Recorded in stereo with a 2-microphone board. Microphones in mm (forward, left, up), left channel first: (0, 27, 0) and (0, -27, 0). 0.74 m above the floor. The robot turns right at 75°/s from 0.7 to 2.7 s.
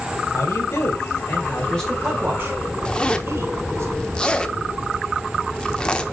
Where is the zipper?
15° left (ahead or behind), 0.8 m.